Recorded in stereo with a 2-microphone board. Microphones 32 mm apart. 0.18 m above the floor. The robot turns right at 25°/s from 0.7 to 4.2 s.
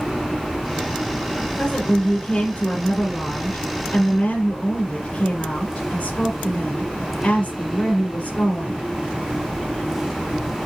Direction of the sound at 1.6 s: 30° left.